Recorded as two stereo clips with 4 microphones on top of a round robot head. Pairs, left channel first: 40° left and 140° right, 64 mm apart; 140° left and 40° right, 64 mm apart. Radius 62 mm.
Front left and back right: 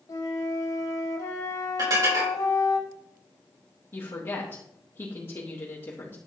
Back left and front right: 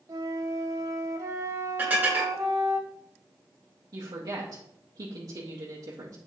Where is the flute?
Straight ahead, 1.5 m.